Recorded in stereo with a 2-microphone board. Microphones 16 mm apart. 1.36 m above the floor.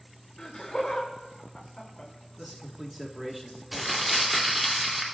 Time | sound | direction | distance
0.4 | laughter | 45° left (ahead or behind) | 2.5 m
2.4 | a man speaking | 10° right (ahead or behind) | 1.6 m
3.7 | crumpling | 5° left (ahead or behind) | 3 m